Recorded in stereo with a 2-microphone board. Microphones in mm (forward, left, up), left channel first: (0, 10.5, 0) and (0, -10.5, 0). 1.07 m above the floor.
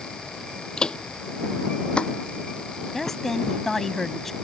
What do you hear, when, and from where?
0.8 s footsteps: 45° left (ahead or behind); by 3.2 s 50° left (ahead or behind)
2.9 s a woman speaking: 15° left (ahead or behind)